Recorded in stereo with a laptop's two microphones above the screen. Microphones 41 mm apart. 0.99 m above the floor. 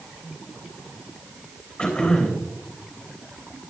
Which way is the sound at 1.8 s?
20° left (ahead or behind).